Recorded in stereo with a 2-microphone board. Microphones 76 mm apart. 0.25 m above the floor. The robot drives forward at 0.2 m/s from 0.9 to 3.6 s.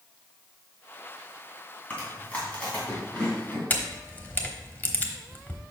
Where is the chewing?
20° left (ahead or behind), 2.5 m.